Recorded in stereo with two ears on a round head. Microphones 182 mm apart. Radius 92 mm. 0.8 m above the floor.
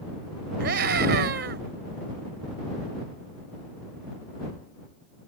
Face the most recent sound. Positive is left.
turn(degrees=-50)  # may be behind; listen again after turning